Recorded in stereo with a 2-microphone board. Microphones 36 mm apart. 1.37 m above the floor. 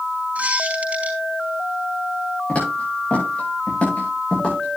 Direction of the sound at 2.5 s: 35° left (ahead or behind).